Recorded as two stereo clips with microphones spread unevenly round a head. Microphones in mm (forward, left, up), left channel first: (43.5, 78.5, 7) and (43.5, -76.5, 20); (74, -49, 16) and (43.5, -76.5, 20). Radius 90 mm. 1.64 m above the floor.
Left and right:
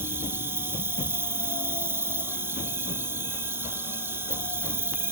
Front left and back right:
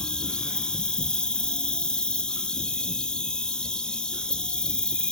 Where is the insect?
30° right, 1.4 m.